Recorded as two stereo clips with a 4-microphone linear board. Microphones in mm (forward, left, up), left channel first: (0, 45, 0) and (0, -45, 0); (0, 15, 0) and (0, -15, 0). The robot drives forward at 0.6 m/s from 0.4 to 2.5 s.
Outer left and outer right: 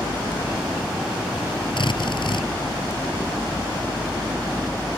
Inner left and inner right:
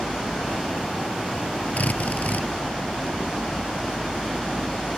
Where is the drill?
60° left (ahead or behind); by 2.5 s 65° left (ahead or behind).